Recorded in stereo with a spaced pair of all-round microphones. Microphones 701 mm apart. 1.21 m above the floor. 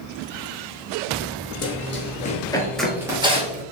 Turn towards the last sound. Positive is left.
turn(degrees=-10)  # may be behind; listen again after turning